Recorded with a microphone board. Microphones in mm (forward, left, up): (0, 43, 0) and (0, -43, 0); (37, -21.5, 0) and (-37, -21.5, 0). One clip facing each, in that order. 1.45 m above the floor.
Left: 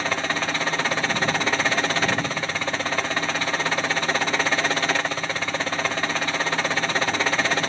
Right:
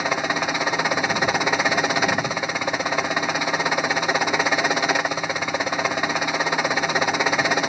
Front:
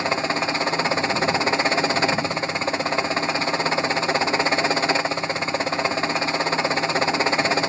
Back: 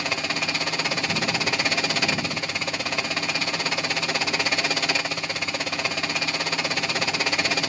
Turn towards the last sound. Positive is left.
turn(degrees=-25)